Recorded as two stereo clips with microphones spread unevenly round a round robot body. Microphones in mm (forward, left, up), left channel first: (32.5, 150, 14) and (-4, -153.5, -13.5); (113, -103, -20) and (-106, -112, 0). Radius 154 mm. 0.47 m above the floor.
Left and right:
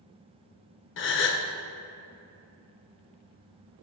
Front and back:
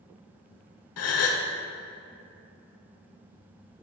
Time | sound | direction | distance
1.0 | a gasp | 25° left | 0.7 m